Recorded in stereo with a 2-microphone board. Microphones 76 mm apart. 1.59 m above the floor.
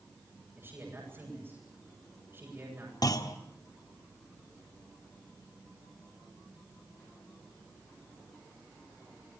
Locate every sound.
0.6 s a man speaking: 30° right (ahead or behind), 9 m
3.0 s a clunk: 55° left (ahead or behind), 1.8 m